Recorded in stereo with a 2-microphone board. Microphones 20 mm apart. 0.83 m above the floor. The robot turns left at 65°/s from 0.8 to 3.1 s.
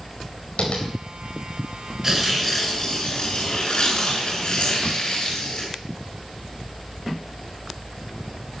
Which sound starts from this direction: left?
Tapping, at 0.6 s.